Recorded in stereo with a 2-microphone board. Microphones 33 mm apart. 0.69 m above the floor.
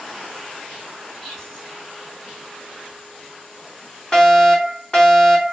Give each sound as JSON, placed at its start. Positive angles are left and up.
{"t": 1.2, "sound": "whispering", "side_deg": 10, "distance_m": 2.0}
{"t": 4.1, "sound": "a fire alarm", "side_deg": 20, "distance_m": 3.0}